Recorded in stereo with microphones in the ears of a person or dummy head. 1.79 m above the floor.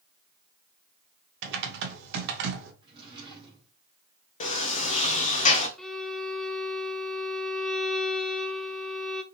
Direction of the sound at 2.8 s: 30° right (ahead or behind).